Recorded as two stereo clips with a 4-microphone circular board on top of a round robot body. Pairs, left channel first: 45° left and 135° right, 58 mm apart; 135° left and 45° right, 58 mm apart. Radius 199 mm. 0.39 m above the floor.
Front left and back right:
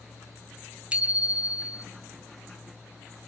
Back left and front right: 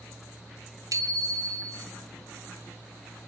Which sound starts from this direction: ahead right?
A bicycle bell, at 0.9 s.